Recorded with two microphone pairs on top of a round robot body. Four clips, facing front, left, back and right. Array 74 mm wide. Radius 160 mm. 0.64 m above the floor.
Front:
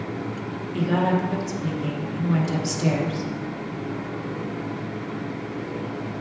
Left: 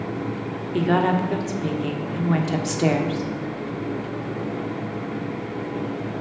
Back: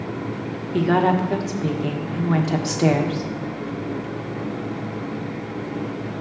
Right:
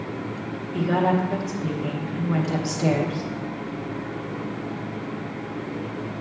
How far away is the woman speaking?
About 1.6 m.